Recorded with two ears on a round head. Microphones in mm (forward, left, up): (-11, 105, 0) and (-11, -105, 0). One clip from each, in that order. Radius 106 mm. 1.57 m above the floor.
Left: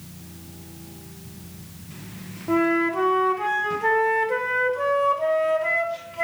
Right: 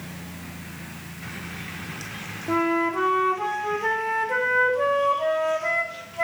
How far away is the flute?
About 0.7 m.